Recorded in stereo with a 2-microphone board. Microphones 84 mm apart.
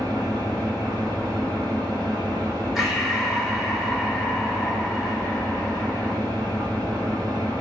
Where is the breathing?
Centre (ahead or behind), 1.0 m.